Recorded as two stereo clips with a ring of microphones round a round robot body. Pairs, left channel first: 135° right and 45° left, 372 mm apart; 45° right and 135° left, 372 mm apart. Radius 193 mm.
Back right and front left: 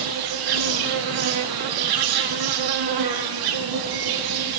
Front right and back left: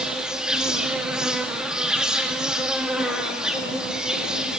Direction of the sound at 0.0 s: 45° left.